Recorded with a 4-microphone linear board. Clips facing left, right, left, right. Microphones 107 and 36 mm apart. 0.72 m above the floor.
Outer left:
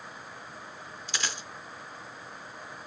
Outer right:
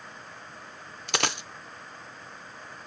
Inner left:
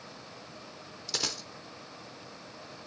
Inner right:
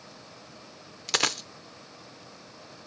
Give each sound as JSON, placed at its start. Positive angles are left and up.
{"t": 1.1, "sound": "a dropped coin", "side_deg": -70, "distance_m": 0.5}